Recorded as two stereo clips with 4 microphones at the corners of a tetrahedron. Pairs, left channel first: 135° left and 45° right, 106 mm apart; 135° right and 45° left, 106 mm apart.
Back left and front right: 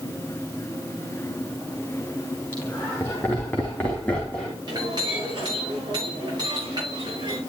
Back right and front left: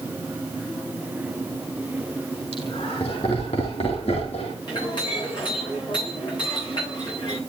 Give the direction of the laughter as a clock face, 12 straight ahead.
5 o'clock.